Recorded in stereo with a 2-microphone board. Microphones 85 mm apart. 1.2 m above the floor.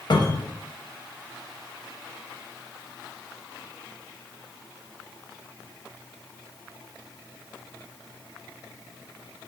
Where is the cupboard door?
55° left (ahead or behind), 0.6 m.